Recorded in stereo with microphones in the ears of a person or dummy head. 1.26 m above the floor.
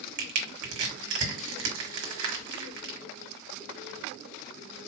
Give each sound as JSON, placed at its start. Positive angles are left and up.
{"t": 0.2, "sound": "crushing", "side_deg": -50, "distance_m": 1.4}